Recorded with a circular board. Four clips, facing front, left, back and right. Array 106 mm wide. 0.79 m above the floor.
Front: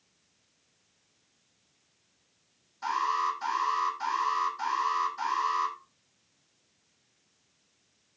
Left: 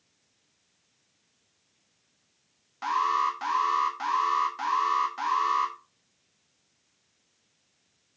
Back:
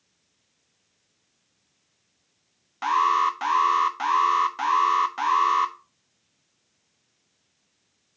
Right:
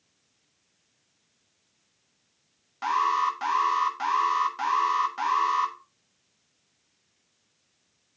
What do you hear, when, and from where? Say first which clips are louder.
2.8 s an alarm: right 1 dB, back 8 dB; 170° right, 1.1 m